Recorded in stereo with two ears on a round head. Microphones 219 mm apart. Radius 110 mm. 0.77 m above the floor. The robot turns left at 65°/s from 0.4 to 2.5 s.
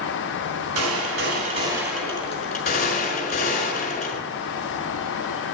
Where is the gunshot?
100° right, 5 m; by 4.2 s 145° left, 5 m.